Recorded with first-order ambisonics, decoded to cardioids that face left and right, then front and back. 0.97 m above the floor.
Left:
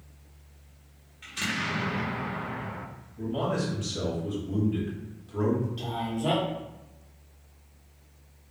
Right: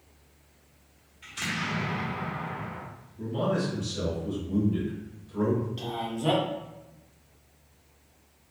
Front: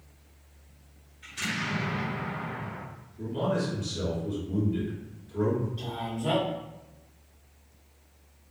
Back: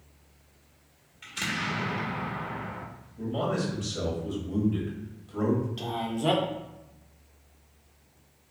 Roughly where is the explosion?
Behind left.